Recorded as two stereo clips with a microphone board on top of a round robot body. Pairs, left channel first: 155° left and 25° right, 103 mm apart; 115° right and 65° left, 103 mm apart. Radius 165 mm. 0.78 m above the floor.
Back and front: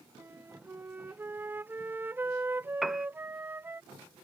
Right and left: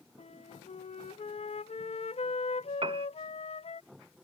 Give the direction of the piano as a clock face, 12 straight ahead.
10 o'clock.